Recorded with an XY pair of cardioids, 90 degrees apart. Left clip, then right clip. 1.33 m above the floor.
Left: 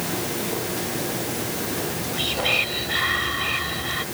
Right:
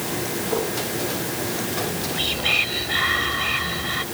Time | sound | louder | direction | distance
1.8 | whispering | right 2 dB | 10° right | ?